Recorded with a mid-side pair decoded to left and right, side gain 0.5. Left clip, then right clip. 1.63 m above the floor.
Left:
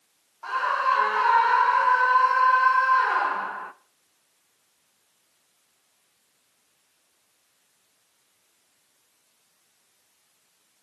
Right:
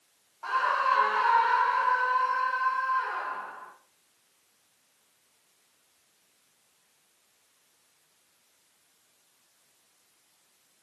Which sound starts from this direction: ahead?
A scream, at 0.4 s.